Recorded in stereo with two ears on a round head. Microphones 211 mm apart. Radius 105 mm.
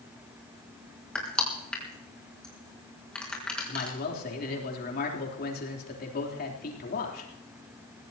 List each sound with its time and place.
1.1 s crushing: 5° left (ahead or behind), 4.5 m
3.7 s a man speaking: 40° left (ahead or behind), 3.5 m